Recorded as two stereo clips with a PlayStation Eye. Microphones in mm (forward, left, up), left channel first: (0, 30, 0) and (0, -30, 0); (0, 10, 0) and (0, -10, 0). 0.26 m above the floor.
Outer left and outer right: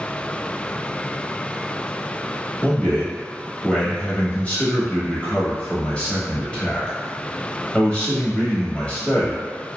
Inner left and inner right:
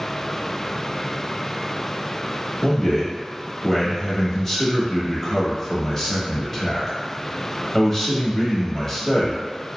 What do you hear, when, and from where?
2.6 s a man speaking: 20° left (ahead or behind), 0.9 m